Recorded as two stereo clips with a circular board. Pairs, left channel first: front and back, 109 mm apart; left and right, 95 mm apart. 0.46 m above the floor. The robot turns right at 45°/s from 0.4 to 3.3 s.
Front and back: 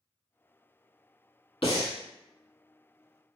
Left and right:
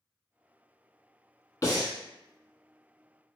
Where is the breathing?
35° left, 0.9 m; by 1.9 s 50° left, 0.9 m.